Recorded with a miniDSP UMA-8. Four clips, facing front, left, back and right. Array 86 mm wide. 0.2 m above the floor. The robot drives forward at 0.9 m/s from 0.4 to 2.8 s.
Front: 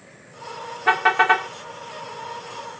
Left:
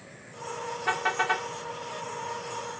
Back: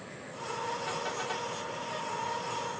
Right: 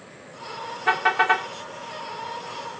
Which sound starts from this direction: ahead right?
A car horn, at 0.9 s.